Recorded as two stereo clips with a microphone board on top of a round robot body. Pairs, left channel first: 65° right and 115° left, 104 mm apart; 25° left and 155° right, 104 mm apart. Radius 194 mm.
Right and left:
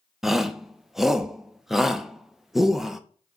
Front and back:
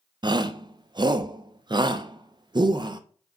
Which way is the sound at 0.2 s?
160° right.